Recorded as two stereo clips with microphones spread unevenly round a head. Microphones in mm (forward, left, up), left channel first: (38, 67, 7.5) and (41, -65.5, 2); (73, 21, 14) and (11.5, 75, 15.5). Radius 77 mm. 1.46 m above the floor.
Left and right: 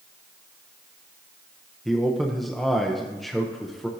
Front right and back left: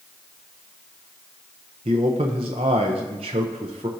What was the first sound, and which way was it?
A man speaking, straight behind.